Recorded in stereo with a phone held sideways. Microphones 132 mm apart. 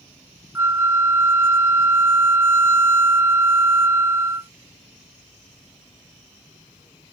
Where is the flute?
20° right (ahead or behind).